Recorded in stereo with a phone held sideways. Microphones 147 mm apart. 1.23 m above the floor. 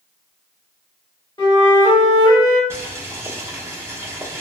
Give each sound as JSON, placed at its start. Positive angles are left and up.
{"t": 1.4, "sound": "a flute", "side_deg": 30, "distance_m": 1.3}
{"t": 2.7, "sound": "boiling", "side_deg": -20, "distance_m": 0.9}